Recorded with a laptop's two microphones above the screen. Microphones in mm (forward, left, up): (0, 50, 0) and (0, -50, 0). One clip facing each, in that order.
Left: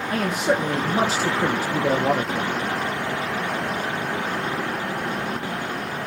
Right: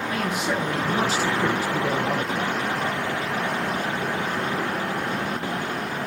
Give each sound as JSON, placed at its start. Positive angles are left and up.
{"t": 0.1, "sound": "a man speaking", "side_deg": 35, "distance_m": 0.8}